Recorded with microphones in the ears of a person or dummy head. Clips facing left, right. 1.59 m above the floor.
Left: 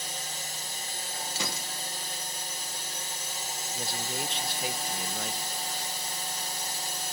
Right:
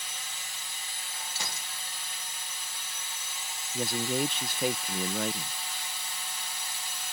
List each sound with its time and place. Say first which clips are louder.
0.0 s a drone: left 6 dB; 30° left (ahead or behind)
1.4 s a gunshot: left 6 dB; 70° left (ahead or behind)
3.7 s a man speaking: right 8 dB; 45° right (ahead or behind)